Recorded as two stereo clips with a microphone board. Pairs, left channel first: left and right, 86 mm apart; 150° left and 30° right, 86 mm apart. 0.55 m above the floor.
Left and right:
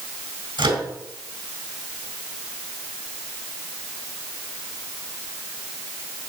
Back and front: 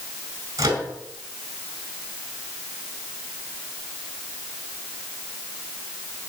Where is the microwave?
80° right, 3.5 m.